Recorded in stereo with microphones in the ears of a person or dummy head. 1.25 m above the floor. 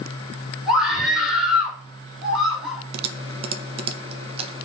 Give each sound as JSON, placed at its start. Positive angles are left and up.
{"t": 0.7, "sound": "a scream", "side_deg": -5, "distance_m": 3.5}
{"t": 2.9, "sound": "typing on a keyboard", "side_deg": -30, "distance_m": 1.3}